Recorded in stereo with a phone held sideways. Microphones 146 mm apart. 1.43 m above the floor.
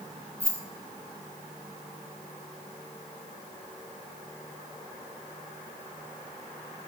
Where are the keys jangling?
10° left (ahead or behind), 0.8 m.